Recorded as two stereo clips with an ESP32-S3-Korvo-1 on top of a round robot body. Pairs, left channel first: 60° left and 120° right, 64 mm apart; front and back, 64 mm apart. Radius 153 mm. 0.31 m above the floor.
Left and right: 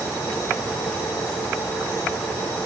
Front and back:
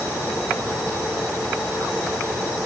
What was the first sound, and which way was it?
Only background noise.